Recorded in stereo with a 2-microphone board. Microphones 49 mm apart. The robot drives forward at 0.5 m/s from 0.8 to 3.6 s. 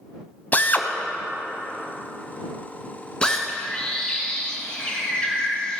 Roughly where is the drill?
Left.